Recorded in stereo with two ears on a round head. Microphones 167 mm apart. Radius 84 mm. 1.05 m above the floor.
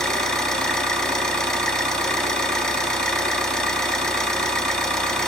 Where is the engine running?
5° left (ahead or behind), 3.5 m.